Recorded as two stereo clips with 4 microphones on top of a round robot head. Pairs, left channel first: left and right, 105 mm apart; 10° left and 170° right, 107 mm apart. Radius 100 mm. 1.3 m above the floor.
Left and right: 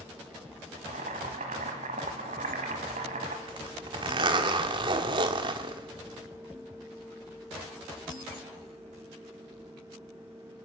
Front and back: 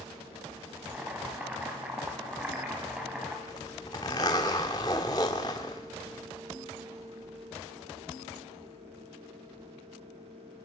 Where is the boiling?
90° right, 2.5 m.